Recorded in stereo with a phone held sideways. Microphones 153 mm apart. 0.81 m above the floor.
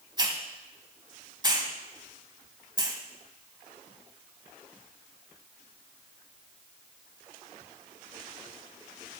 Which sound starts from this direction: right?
A hiss, at 0.2 s.